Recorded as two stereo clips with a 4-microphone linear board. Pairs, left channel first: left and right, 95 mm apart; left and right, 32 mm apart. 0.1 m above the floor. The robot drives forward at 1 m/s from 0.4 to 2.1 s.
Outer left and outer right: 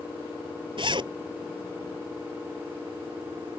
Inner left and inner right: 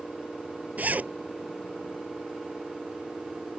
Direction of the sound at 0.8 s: 55° right (ahead or behind).